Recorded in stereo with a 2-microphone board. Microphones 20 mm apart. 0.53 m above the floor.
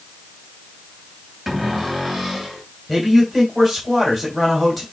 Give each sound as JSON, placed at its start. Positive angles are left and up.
{"t": 1.5, "sound": "a cupboard door", "side_deg": -20, "distance_m": 3.0}
{"t": 2.9, "sound": "a man speaking", "side_deg": -5, "distance_m": 3.5}